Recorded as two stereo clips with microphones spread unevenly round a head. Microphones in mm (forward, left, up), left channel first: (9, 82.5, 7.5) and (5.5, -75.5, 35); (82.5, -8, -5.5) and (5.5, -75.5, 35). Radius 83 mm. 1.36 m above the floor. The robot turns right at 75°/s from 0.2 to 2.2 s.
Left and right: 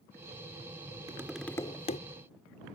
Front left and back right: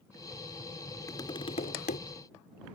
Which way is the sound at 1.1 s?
25° right.